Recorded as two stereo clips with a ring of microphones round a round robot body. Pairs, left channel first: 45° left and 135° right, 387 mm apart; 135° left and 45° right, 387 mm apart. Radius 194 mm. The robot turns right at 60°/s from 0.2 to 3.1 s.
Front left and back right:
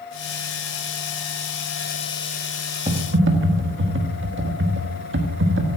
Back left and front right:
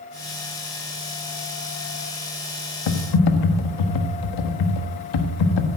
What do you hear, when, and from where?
2.9 s typing on a keyboard: 150° left, 1.4 m; by 5.8 s 165° left, 1.4 m